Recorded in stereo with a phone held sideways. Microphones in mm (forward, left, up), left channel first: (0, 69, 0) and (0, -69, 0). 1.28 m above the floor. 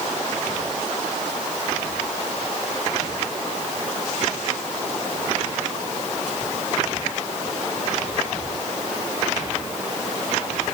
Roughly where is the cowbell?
I don't hear a cowbell.